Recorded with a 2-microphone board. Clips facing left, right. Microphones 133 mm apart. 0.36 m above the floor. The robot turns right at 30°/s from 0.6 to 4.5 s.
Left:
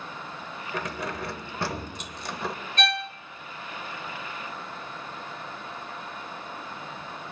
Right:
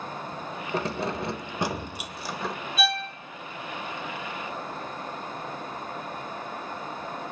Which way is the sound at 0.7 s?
50° right.